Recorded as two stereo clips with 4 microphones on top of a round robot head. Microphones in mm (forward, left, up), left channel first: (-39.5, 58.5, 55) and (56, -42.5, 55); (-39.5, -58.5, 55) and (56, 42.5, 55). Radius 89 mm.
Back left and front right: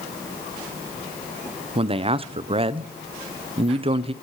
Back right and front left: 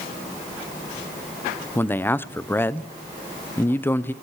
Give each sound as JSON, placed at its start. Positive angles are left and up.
{"t": 1.8, "sound": "a man speaking", "azimuth_deg": -65, "distance_m": 0.5}